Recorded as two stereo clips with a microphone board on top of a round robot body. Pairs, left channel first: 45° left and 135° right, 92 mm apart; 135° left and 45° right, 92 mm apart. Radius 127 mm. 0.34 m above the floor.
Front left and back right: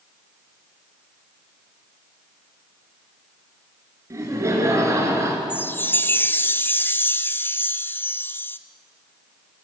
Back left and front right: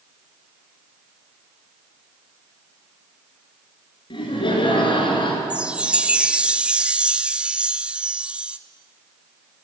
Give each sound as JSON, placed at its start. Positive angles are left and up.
{"t": 4.1, "sound": "laughter", "azimuth_deg": 165, "distance_m": 6.0}
{"t": 5.5, "sound": "a chime", "azimuth_deg": 15, "distance_m": 1.3}